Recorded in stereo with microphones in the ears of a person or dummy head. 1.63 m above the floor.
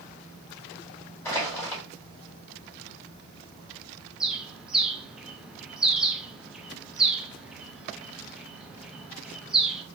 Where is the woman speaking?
No woman speaking in this recording.